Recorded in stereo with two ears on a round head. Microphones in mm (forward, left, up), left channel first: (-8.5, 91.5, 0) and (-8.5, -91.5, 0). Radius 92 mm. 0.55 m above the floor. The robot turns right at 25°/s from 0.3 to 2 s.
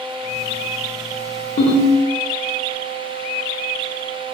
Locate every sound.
1.6 s a ringtone: 35° left (ahead or behind), 0.7 m; by 1.9 s 25° left (ahead or behind), 0.7 m